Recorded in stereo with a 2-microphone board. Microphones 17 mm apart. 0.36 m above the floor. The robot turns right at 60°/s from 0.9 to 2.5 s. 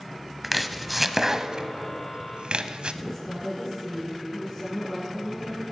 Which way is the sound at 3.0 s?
10° left (ahead or behind).